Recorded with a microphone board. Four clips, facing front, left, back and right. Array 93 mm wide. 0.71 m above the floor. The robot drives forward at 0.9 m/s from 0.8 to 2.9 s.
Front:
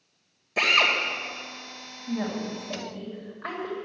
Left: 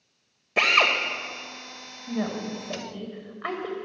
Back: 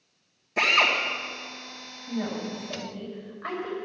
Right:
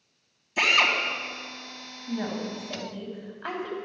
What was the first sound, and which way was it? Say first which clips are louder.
A drill: left 2 dB, back 1 dB; 80° left.